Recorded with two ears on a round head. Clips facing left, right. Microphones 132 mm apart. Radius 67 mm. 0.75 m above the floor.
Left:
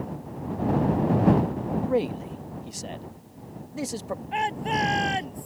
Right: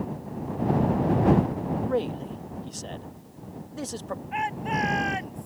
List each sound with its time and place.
1.7 s a man speaking: 10° left (ahead or behind)
4.3 s a shout: 35° left (ahead or behind)